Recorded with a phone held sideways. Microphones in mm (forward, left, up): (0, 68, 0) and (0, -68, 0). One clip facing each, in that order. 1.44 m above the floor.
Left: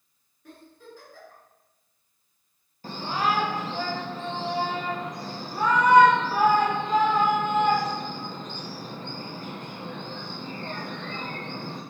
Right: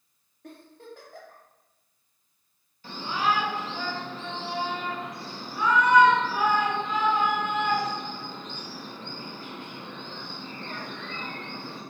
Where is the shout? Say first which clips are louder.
Left 1 dB; 45° left (ahead or behind), 1.2 m.